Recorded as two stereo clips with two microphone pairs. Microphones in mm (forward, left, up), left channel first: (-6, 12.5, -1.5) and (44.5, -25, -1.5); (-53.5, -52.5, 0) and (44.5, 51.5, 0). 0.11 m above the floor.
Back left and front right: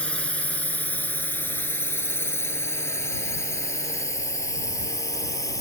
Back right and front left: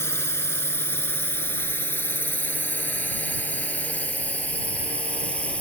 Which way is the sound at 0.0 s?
Straight behind.